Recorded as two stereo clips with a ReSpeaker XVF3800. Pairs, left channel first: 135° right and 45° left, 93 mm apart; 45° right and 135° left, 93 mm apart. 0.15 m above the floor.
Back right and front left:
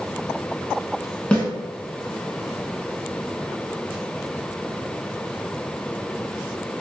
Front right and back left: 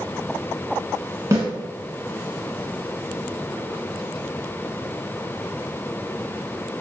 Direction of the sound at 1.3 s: 155° left.